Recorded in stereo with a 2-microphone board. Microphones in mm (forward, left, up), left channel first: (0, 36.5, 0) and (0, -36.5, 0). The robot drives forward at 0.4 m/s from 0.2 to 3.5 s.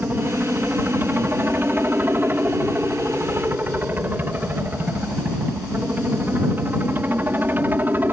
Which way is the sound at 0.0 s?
25° right (ahead or behind).